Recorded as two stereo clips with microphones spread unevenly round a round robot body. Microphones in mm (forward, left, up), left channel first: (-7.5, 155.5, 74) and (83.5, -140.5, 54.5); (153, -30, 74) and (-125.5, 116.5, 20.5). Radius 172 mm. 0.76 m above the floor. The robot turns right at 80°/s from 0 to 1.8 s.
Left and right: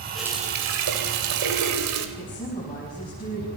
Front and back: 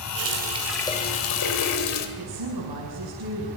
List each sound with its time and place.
0.1 s a running tap: 165° right, 3 m; by 2.1 s 35° right, 3 m
2.2 s a woman speaking: straight behind, 6.5 m